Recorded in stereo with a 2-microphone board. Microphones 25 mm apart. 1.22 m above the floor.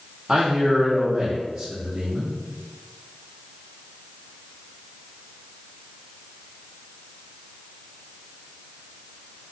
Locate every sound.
0.3 s a man speaking: 15° right (ahead or behind), 0.8 m